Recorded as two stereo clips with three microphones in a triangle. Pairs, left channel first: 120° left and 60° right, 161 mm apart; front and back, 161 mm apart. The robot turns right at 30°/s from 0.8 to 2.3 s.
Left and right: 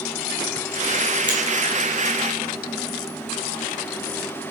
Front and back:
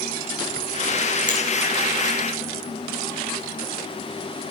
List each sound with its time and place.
1.3 s a finger snap: 5° right, 2.5 m